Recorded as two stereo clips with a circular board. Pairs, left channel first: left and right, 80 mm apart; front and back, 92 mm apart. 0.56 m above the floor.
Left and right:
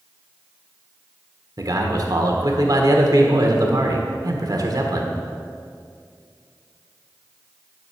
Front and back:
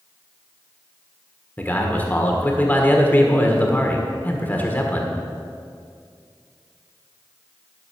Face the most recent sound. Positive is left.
turn(degrees=-65)